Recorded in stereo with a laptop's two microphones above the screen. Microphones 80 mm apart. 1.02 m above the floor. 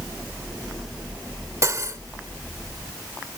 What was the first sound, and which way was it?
Cutlery clinking, 40° right (ahead or behind).